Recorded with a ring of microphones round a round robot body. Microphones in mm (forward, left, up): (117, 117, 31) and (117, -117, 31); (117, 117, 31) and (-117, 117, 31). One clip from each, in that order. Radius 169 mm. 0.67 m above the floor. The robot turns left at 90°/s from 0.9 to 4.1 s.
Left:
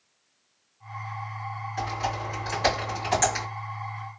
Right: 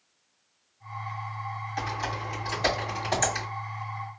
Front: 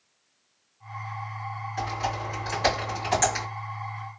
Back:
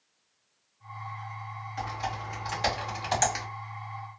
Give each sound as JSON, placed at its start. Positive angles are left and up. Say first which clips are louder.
{"t": 1.8, "sound": "typing on a keyboard", "louder": "left 2 dB, front 4 dB", "azimuth_deg": -85, "distance_m": 2.0}